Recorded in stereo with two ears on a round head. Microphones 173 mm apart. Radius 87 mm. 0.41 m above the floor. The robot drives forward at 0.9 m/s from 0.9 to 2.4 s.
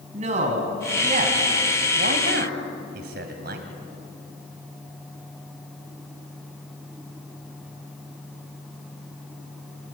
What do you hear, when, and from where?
0.1 s a man speaking: 35° right (ahead or behind), 3 m; by 3.7 s 55° right (ahead or behind), 2.5 m